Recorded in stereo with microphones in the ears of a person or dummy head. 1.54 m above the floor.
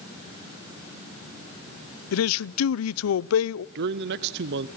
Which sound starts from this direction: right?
A man speaking, at 3.8 s.